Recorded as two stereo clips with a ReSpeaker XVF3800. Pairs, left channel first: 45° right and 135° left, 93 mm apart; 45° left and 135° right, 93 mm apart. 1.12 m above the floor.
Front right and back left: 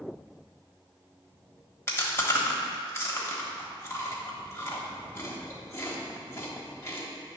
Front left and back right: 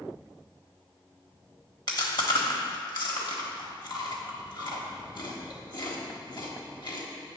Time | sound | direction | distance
1.9 | chewing | 15° left | 1.2 m